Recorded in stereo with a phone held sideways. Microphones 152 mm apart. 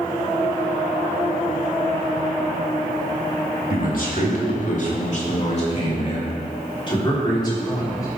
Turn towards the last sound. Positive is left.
turn(degrees=25)  # may be behind; listen again after turning